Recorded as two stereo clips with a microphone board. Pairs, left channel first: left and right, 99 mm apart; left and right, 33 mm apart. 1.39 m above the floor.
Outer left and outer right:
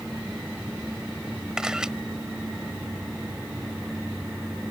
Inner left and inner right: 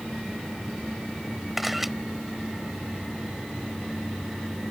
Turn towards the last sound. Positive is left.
turn(degrees=-5)  # may be behind; listen again after turning